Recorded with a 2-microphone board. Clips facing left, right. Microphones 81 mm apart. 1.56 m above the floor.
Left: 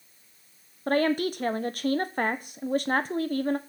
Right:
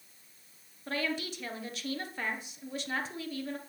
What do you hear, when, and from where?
0.9 s a woman speaking: 50° left (ahead or behind), 1.1 m